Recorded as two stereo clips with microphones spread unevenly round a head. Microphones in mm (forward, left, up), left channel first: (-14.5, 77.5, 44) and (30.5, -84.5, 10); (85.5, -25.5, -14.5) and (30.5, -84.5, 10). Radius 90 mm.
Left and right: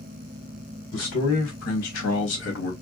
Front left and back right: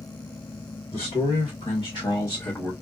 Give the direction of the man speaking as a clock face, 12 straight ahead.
9 o'clock.